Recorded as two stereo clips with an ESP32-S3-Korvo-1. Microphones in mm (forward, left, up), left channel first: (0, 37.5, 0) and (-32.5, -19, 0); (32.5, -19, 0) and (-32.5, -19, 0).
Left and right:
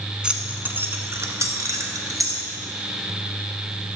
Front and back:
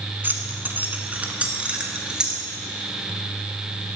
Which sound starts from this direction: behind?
Keys jangling, at 0.2 s.